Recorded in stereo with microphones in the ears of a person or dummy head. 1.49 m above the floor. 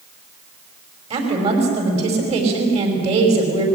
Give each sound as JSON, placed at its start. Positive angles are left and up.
{"t": 1.1, "sound": "a woman speaking", "side_deg": -40, "distance_m": 6.0}